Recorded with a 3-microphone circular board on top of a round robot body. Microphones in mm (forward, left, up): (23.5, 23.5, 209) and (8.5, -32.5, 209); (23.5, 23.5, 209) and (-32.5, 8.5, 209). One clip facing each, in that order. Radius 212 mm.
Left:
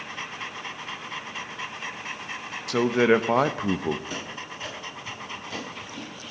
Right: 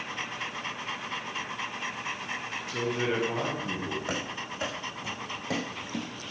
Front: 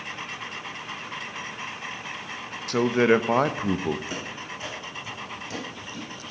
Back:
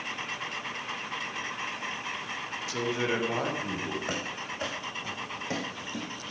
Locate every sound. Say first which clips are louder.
2.7 s a man speaking: left 10 dB, front 10 dB; 50° left, 1.1 m
4.1 s running footsteps: right 1 dB, even; 125° right, 5 m; by 6.1 s 95° right, 3.5 m